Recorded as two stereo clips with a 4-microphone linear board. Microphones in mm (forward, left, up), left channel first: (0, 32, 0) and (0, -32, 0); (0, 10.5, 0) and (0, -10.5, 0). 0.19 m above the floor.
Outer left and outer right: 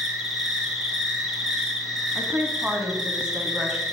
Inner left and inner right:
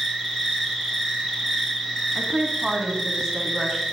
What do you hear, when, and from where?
0.0 s an insect: 5° right (ahead or behind), 3 m
2.1 s a woman speaking: 10° right (ahead or behind), 1.2 m